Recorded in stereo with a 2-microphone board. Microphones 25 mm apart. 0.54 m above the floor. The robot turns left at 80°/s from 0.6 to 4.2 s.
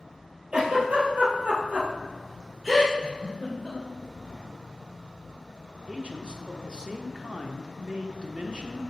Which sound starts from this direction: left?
A giggle, at 3.0 s.